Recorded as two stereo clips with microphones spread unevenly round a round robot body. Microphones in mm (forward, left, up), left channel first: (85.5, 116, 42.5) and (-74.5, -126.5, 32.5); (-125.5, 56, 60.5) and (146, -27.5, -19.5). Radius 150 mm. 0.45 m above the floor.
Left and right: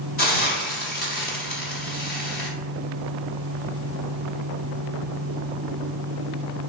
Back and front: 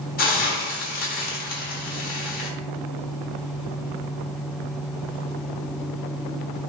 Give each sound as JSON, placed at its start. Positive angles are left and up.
{"t": 0.2, "sound": "a hiss", "azimuth_deg": 100, "distance_m": 1.0}